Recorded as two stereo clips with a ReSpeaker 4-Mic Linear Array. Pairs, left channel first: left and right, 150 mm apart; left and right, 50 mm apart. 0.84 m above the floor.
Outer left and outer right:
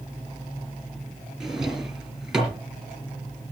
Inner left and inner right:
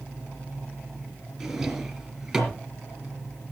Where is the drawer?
5° right (ahead or behind), 3.5 m.